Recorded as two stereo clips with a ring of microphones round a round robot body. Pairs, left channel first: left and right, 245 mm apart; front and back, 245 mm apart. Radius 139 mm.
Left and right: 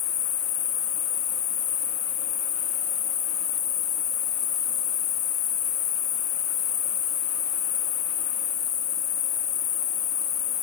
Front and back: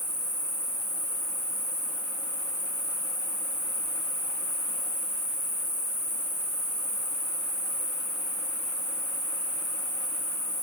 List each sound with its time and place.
0.0 s an insect: 110° left, 2 m